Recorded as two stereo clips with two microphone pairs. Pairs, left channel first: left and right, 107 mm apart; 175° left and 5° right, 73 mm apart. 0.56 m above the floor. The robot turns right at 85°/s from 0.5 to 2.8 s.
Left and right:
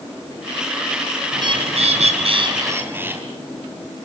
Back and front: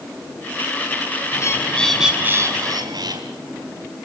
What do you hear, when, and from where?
1.3 s a bird: 145° right, 4 m; by 3.2 s 20° right, 4 m